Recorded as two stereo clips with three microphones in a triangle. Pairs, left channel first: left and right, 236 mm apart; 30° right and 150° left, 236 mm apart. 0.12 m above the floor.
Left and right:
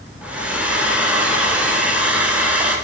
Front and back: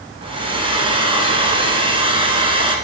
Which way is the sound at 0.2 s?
170° right.